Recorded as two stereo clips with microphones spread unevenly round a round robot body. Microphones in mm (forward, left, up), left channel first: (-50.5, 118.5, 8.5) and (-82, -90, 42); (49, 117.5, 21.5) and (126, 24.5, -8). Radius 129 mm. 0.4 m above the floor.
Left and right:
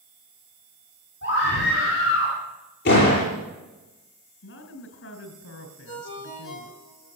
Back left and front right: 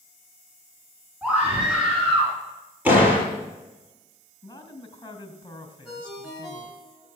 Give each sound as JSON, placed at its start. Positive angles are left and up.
{"t": 1.2, "sound": "a scream", "azimuth_deg": 35, "distance_m": 4.0}
{"t": 2.9, "sound": "a door slam", "azimuth_deg": 25, "distance_m": 8.0}
{"t": 4.4, "sound": "a woman speaking", "azimuth_deg": 70, "distance_m": 2.5}
{"t": 5.8, "sound": "a ringtone", "azimuth_deg": 35, "distance_m": 7.5}